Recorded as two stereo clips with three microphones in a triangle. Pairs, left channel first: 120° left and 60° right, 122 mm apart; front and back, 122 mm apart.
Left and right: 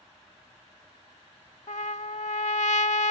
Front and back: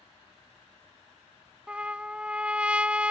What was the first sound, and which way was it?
A trumpet, 100° left.